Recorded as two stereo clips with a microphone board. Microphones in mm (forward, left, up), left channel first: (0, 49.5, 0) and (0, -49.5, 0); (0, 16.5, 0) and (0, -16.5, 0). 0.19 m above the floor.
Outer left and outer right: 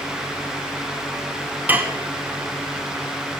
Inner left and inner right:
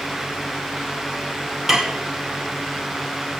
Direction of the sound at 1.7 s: 15° right (ahead or behind).